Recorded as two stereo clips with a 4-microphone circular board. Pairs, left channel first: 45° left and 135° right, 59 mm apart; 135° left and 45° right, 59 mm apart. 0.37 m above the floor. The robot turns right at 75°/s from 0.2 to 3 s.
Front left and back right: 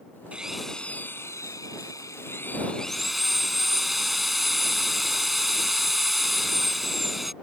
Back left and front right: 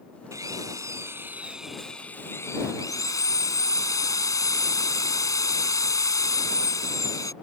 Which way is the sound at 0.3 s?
60° right.